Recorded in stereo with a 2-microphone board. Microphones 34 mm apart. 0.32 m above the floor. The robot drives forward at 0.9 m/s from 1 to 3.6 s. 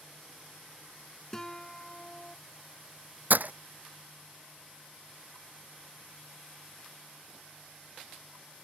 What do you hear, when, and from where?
1.3 s a guitar: 15° left (ahead or behind); by 2.4 s 25° left (ahead or behind)
3.3 s breaking glass: 60° right (ahead or behind); by 3.5 s 55° right (ahead or behind)